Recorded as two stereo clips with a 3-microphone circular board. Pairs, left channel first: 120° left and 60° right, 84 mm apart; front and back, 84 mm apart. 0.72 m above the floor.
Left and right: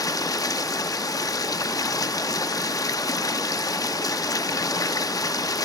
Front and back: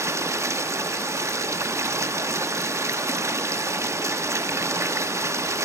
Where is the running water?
140° left, 0.8 m.